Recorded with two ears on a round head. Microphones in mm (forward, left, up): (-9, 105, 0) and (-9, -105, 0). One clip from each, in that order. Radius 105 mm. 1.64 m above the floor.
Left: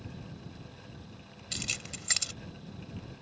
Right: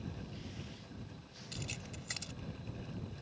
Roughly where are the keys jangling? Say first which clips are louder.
Left 10 dB; left.